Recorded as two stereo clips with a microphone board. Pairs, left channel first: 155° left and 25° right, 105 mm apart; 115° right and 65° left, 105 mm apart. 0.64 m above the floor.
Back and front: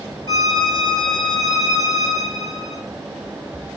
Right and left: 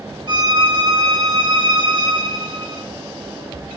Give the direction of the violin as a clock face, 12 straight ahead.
8 o'clock.